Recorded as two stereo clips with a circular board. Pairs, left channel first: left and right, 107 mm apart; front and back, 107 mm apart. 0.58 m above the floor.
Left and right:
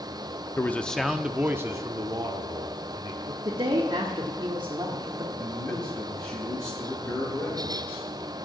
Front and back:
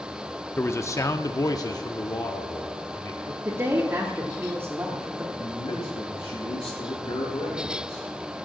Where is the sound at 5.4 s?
35° left, 5.5 m.